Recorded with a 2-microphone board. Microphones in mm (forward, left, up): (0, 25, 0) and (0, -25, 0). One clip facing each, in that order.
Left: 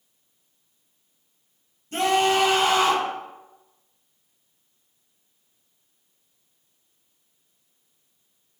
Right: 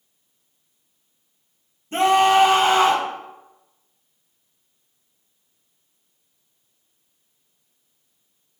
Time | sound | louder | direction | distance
1.9 | a scream | right 5 dB | 30° right (ahead or behind) | 1.6 m